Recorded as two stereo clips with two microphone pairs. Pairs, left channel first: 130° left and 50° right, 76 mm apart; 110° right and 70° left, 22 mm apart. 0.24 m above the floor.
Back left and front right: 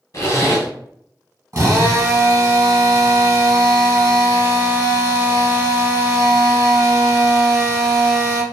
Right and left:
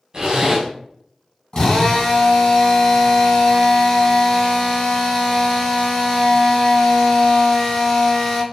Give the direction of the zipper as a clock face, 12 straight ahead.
8 o'clock.